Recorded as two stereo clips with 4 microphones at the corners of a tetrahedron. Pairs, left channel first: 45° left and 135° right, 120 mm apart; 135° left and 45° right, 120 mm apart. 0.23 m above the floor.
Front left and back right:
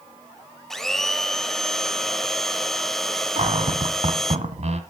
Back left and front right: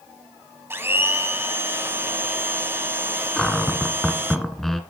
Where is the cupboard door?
140° right, 1.3 m.